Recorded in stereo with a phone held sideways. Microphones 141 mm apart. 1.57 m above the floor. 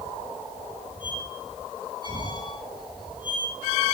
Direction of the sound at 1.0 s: 35° right (ahead or behind).